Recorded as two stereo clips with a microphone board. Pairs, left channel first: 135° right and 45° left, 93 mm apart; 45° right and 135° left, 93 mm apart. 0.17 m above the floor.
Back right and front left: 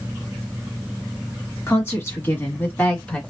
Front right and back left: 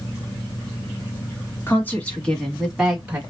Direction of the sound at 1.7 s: 95° right.